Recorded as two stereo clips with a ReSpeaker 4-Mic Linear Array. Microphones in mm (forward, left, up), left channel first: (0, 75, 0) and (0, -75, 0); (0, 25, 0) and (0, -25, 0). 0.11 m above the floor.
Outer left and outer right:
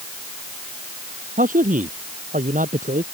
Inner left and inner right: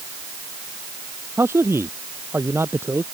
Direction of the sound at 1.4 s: 55° right (ahead or behind).